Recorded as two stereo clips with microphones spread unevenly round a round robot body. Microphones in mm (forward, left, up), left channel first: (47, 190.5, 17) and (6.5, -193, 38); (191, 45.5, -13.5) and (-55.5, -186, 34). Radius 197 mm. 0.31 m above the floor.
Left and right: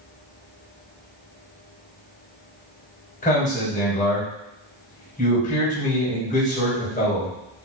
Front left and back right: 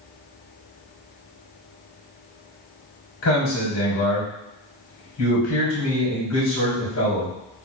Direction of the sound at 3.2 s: 20° left.